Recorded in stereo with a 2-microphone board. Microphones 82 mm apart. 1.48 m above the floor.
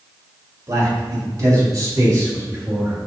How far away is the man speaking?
About 3 m.